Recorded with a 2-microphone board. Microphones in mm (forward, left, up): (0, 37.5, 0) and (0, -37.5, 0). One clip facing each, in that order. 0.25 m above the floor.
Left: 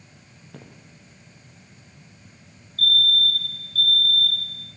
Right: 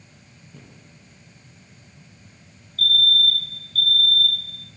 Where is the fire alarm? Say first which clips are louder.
Right 1 dB; 40° left (ahead or behind), 3.5 m.